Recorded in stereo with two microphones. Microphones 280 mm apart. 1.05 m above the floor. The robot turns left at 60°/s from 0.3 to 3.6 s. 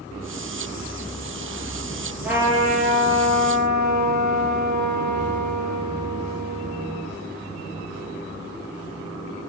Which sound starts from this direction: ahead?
A trumpet, at 2.2 s.